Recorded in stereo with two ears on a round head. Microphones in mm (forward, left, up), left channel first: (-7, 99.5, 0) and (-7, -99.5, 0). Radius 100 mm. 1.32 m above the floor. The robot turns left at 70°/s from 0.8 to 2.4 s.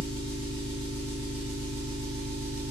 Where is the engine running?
5° left, 1.7 m; by 2.7 s 110° right, 1.7 m.